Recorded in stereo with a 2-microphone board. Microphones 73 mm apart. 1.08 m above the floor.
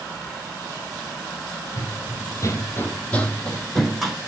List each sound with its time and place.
1.8 s running footsteps: 50° left (ahead or behind), 1.7 m; by 4.2 s 5° right (ahead or behind), 2.5 m